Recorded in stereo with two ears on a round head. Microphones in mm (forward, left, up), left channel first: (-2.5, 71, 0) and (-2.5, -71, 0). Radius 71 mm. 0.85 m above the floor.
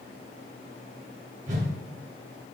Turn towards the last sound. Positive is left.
turn(degrees=-50)  # may be behind; listen again after turning